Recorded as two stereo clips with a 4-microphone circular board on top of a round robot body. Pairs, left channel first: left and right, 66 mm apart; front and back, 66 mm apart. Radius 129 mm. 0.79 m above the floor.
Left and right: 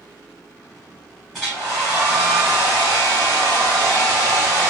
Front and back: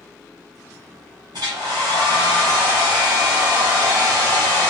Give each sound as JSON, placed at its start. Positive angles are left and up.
{"t": 1.3, "sound": "a hair dryer", "azimuth_deg": 175, "distance_m": 0.7}